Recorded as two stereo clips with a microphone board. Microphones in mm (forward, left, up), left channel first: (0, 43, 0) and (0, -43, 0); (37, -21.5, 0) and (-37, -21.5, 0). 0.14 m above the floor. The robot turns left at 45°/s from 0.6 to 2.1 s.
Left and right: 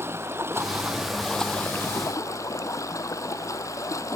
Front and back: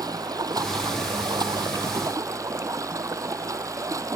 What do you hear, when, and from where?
0.0 s running water: 150° right; by 4.2 s 140° left